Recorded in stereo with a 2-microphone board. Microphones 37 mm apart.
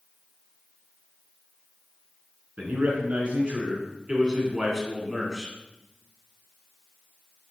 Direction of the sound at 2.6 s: 50° right (ahead or behind).